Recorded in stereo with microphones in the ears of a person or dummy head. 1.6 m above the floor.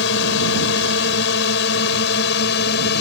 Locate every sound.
0.0 s a drone: 75° left (ahead or behind); by 3.0 s 70° left (ahead or behind)